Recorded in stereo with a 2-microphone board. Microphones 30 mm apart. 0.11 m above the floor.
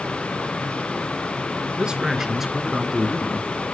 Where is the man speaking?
30° right (ahead or behind), 1.5 m; by 3.7 s 25° left (ahead or behind), 1.7 m.